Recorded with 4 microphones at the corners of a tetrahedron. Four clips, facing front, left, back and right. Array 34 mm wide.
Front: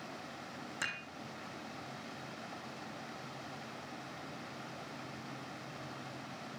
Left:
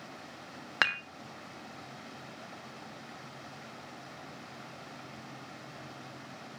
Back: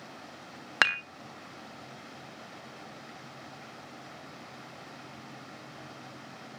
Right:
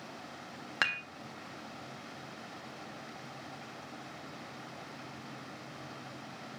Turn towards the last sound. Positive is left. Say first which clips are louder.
# left 3 dB, back 15 dB
turn(degrees=165)